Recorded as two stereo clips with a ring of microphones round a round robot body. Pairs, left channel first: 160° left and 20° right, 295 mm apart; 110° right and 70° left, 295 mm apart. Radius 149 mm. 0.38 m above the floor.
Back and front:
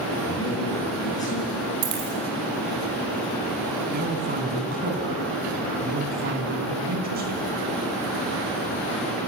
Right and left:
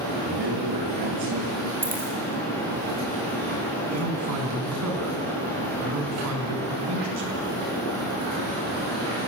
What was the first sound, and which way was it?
A man speaking, 80° left.